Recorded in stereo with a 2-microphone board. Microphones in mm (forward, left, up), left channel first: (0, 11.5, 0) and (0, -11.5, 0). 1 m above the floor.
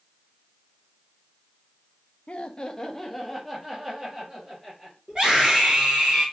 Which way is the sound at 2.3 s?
50° left (ahead or behind).